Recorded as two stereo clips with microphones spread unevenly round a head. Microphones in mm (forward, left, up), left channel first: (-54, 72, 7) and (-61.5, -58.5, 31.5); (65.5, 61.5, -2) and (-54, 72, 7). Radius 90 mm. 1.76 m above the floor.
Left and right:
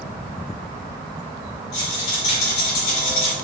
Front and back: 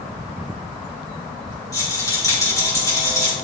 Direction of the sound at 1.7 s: 60° left.